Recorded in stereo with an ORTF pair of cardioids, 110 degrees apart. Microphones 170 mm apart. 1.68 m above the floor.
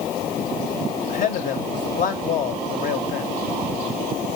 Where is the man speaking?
55° left, 1.4 m.